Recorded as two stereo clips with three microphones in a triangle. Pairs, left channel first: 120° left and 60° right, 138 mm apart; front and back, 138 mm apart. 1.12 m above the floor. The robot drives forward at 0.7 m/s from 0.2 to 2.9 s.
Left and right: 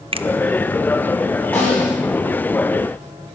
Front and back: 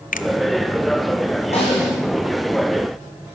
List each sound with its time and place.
0.1 s a finger snap: 10° right, 0.7 m
1.5 s a snare drum: 45° left, 9 m